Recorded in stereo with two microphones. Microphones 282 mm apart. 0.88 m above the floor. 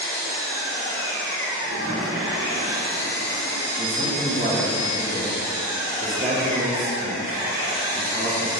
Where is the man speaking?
30° right (ahead or behind), 1.3 m.